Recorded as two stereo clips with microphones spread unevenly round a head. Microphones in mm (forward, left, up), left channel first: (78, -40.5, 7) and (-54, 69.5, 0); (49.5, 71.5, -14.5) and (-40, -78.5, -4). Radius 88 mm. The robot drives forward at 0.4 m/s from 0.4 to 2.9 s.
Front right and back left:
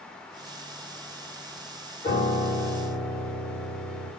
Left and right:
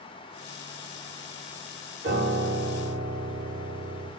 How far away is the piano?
About 3.5 m.